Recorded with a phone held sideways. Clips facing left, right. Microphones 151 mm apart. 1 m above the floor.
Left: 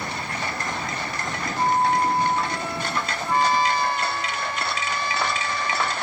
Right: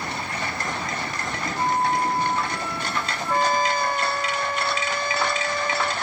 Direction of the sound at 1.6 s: 20° left (ahead or behind).